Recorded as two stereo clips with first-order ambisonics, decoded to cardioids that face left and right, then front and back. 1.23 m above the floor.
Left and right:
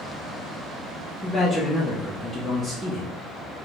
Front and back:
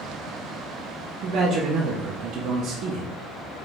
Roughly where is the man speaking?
Behind.